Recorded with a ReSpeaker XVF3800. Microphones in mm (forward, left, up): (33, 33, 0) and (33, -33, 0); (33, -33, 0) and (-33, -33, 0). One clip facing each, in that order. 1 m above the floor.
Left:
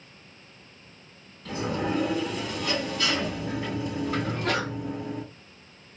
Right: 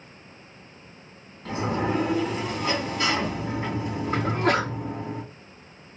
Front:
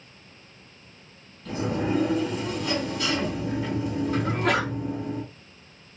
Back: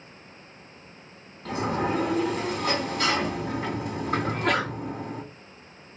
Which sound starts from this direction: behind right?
A sliding door, at 1.4 s.